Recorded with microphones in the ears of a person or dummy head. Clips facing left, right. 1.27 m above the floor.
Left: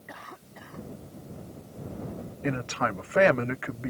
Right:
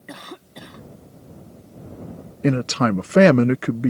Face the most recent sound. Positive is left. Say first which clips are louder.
# right 11 dB
turn(degrees=-50)  # may be behind; listen again after turning